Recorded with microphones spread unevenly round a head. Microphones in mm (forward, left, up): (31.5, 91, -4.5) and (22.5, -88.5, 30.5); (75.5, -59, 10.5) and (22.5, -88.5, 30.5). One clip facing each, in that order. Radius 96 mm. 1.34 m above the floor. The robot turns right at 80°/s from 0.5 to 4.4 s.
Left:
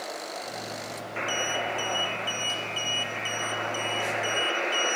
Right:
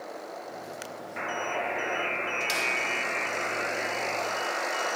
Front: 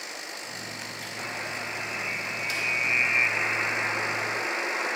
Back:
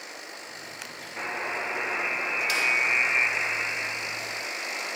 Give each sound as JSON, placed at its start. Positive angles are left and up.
{"t": 1.2, "sound": "a buzzer", "azimuth_deg": 130, "distance_m": 1.5}